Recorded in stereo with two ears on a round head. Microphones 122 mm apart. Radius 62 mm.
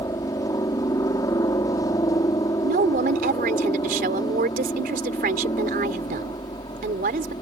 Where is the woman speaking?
60° right (ahead or behind).